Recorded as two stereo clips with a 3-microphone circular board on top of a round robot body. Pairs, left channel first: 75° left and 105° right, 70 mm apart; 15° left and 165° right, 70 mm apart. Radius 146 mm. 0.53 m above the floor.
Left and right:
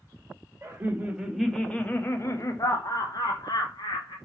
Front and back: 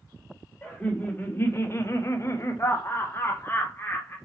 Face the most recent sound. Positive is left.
turn(degrees=75)